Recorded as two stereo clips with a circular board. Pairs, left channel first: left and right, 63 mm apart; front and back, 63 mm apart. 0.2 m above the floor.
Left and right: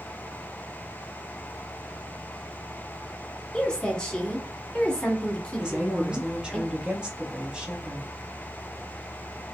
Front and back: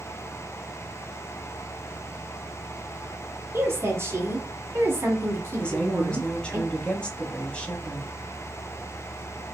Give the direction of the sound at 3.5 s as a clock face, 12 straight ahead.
7 o'clock.